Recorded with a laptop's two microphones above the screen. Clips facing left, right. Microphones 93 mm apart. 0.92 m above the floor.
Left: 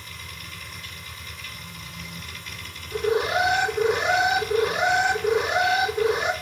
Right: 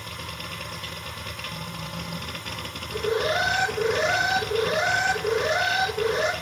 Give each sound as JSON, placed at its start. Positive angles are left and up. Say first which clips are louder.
{"t": 0.0, "sound": "a machine running", "louder": "right 5 dB", "side_deg": -60, "distance_m": 1.1}
{"t": 2.9, "sound": "an alarm", "louder": "left 2 dB", "side_deg": 15, "distance_m": 3.5}